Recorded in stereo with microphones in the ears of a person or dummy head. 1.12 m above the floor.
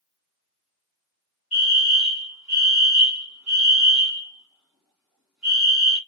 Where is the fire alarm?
5° right (ahead or behind), 2.5 m.